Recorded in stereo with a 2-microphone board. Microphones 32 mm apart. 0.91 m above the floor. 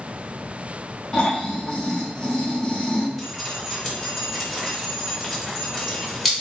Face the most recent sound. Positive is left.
turn(degrees=5)  # may be behind; listen again after turning